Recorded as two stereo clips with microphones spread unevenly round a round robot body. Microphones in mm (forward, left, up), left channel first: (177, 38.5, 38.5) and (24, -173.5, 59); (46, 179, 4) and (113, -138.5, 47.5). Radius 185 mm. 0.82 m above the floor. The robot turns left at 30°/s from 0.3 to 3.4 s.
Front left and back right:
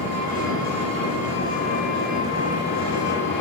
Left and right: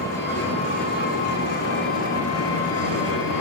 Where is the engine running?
175° right, 2.5 m; by 3.4 s 90° left, 2.5 m.